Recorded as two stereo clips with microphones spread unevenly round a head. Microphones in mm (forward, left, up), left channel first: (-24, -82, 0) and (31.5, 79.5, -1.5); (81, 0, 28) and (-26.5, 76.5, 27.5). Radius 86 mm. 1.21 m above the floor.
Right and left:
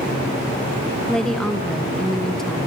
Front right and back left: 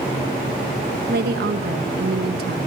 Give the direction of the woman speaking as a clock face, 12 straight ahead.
7 o'clock.